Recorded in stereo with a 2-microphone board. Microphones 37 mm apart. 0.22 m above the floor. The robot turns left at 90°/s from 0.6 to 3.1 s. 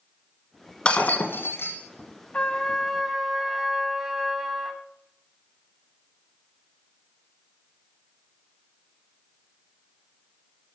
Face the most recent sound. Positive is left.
turn(degrees=-15)